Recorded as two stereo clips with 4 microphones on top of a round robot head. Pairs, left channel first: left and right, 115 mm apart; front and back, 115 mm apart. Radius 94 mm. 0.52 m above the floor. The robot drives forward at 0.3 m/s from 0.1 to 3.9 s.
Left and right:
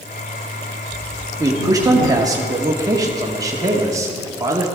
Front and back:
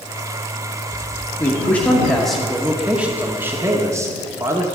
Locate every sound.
1.4 s a man speaking: 60° right, 1.0 m; by 4.7 s 130° right, 1.1 m